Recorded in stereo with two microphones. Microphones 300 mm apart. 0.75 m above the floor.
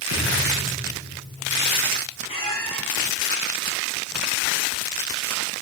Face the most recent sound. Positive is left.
turn(degrees=20)  # may be behind; listen again after turning